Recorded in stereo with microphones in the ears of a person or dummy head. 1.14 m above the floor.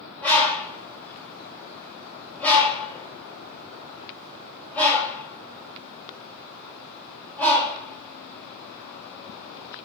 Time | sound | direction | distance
0.2 | a bird | 10° left (ahead or behind) | 5 m